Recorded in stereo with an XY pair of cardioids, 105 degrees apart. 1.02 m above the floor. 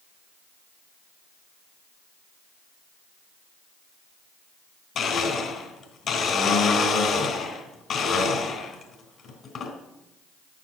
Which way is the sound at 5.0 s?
60° left.